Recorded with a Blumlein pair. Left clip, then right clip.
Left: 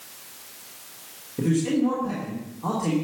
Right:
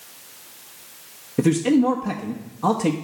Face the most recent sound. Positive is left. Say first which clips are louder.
# right 5 dB
turn(degrees=-30)